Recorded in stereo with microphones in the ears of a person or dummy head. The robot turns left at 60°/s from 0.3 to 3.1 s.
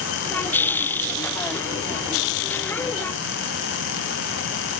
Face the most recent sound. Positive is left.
No sound to turn to.